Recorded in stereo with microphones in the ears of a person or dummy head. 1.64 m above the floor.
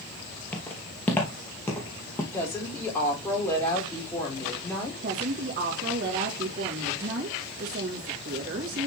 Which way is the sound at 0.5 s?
10° left (ahead or behind).